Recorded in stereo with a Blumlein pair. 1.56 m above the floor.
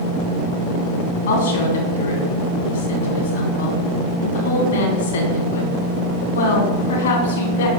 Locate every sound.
1.3 s a woman speaking: 60° left, 3 m